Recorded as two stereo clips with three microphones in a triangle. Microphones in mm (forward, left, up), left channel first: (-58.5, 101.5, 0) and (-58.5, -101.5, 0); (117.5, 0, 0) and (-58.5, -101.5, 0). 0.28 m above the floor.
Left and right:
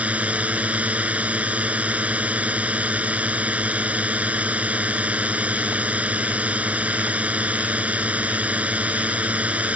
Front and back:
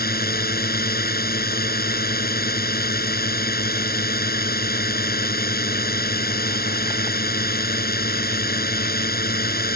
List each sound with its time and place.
0.0 s a drone: 5° right